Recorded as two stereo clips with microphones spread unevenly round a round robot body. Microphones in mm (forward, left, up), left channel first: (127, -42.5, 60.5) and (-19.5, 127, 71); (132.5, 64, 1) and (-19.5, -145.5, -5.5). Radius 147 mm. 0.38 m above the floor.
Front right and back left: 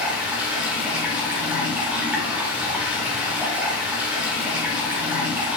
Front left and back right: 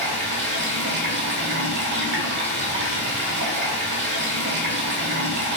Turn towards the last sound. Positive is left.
turn(degrees=-145)